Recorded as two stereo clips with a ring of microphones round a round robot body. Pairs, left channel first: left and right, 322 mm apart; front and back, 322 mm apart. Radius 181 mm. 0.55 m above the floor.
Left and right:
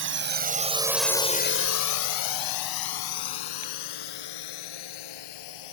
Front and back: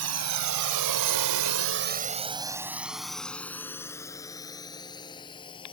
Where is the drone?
140° right; by 5.7 s 75° left.